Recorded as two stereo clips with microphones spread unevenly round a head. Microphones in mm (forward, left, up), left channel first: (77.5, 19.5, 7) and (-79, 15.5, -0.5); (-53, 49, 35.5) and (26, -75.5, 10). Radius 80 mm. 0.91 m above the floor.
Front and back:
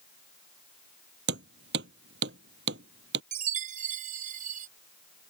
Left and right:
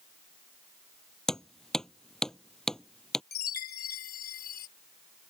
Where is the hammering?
150° right.